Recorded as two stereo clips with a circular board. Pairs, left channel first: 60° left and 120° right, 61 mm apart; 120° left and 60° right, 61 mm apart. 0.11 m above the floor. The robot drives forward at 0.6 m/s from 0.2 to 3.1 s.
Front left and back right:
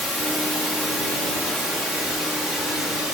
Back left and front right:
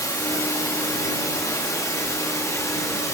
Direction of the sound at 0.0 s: 150° left.